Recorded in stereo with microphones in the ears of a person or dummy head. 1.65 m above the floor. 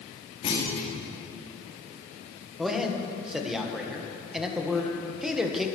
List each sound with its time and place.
0.4 s a clunk: 30° left (ahead or behind), 2.5 m
2.6 s a man speaking: 5° right (ahead or behind), 1.5 m